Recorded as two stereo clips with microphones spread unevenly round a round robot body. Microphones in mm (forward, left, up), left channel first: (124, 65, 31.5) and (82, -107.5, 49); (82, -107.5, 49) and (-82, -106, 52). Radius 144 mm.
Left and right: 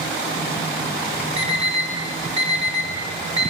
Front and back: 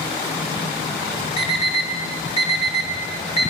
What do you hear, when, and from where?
1.4 s an alarm clock: 50° right, 5 m